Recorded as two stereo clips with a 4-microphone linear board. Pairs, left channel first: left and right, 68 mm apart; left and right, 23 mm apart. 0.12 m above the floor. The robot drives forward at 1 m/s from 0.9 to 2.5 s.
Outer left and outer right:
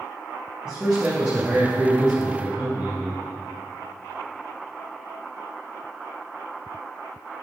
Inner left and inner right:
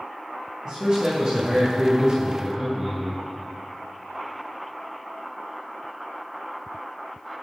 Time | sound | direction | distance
0.7 | a man speaking | 15° right (ahead or behind) | 3 m